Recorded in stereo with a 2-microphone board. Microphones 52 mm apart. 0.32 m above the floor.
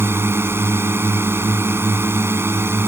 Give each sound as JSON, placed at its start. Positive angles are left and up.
{"t": 0.0, "sound": "a drone", "side_deg": -50}